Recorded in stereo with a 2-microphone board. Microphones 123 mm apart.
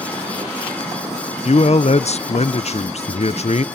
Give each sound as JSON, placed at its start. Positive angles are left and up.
{"t": 1.4, "sound": "a man speaking", "side_deg": 60, "distance_m": 0.7}